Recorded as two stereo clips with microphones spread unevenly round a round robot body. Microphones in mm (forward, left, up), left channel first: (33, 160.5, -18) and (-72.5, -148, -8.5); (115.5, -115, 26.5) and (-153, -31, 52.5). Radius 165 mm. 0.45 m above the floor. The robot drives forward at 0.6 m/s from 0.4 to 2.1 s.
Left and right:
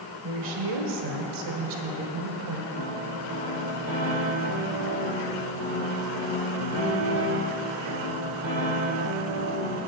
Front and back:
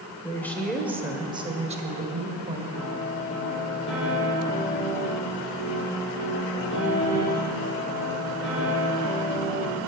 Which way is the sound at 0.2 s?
95° right.